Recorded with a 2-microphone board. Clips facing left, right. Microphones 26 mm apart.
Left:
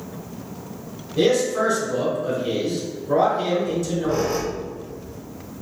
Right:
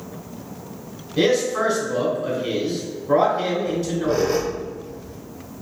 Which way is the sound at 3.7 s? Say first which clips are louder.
Right 1 dB; 80° right.